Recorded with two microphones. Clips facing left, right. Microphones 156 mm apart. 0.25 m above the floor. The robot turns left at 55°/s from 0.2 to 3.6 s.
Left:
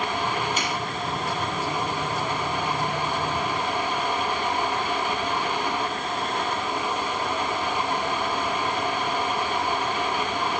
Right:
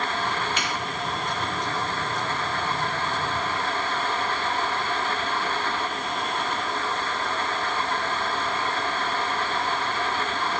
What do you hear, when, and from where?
0.6 s a finger snap: 45° left (ahead or behind), 5.5 m; by 0.7 s 55° left (ahead or behind), 5.5 m